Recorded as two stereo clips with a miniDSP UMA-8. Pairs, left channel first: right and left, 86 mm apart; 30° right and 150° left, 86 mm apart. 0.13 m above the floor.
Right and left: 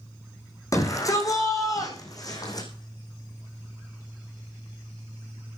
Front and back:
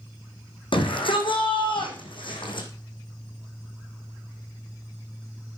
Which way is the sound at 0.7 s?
40° right.